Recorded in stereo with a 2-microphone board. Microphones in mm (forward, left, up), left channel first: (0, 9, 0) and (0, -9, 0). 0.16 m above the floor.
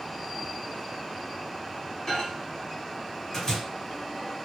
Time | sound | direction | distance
2.1 | a microwave | 30° left (ahead or behind) | 2 m